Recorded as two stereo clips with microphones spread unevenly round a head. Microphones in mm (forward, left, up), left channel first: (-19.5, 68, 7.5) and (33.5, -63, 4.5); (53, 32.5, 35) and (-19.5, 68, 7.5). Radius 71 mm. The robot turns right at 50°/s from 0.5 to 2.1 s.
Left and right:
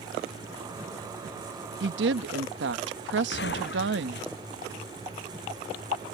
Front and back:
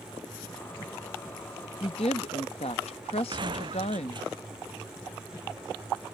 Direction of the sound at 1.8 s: 85° right.